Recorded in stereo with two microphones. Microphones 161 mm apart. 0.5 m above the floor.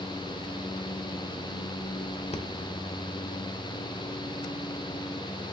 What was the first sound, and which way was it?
Breathing, 40° left (ahead or behind).